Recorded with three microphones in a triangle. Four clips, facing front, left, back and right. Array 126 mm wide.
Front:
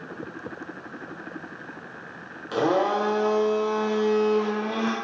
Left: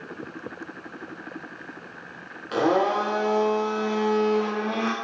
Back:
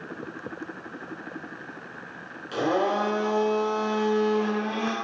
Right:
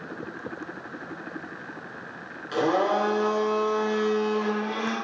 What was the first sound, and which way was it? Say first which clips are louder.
A blender: left 2 dB, front 2 dB; 50° left.